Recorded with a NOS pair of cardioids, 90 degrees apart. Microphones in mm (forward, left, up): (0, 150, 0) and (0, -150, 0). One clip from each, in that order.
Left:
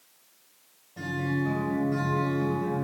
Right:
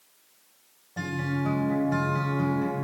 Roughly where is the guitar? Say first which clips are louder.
Even; ahead right.